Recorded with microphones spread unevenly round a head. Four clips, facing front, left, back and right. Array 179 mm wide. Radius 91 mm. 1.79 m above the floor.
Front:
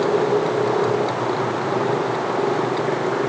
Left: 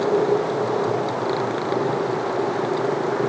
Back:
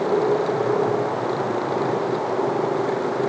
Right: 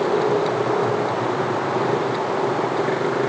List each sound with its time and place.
Only background noise.